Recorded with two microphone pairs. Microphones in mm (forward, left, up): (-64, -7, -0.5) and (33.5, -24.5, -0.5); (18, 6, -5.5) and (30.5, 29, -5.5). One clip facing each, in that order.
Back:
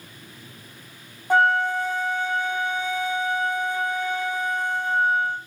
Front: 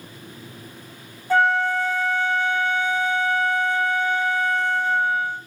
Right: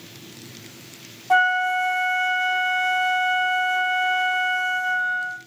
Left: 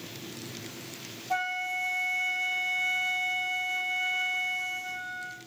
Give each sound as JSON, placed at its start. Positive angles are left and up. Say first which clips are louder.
{"t": 1.3, "sound": "a flute", "louder": "even, right 12 dB", "azimuth_deg": -120, "distance_m": 1.2}